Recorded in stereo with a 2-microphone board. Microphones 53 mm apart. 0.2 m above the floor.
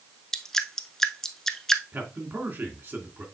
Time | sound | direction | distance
0.3 | dripping | 10° left (ahead or behind) | 0.7 m
1.9 | a man speaking | 40° right (ahead or behind) | 2.5 m